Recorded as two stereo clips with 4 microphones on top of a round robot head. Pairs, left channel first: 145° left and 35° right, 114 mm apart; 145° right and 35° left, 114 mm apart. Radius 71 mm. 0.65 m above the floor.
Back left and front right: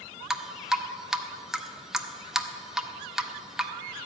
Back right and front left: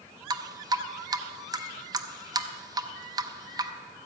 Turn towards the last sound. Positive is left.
turn(degrees=45)